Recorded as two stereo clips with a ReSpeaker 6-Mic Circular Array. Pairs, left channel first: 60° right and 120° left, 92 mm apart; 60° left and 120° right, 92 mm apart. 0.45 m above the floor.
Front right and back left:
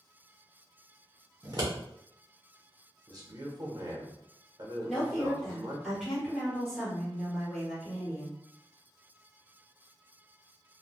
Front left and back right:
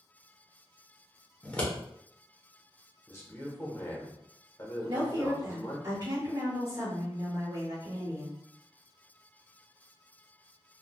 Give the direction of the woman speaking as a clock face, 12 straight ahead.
5 o'clock.